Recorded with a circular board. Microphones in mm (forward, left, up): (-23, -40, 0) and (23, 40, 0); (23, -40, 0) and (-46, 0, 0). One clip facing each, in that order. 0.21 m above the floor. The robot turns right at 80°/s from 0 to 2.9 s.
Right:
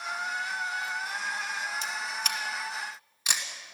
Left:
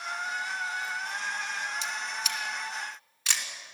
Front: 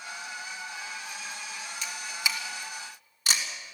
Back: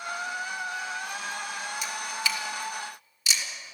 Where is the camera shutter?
135° right, 2.5 m; by 3.5 s 50° right, 2.5 m.